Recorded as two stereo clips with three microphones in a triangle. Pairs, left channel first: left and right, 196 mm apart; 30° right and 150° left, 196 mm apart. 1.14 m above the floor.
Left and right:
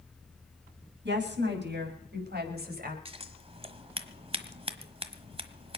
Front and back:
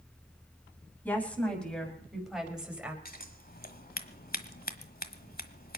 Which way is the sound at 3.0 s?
40° right.